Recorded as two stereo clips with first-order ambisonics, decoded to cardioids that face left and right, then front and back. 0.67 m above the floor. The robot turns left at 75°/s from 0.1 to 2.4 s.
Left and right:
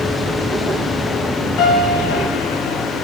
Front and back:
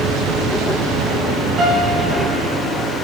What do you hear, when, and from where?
1.6 s a piano: 130° left, 2.5 m; by 2.9 s 65° left, 2.5 m